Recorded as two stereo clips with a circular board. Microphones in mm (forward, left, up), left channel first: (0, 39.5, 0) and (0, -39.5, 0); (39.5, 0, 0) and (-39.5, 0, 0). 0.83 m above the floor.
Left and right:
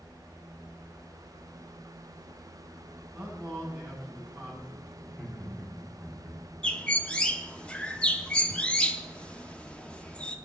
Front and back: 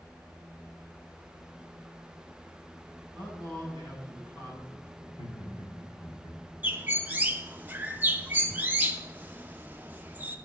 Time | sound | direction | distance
3.1 | a man speaking | 20° right | 7 m
5.0 | laughter | 10° left | 2.5 m
6.6 | a bird | 150° left | 0.9 m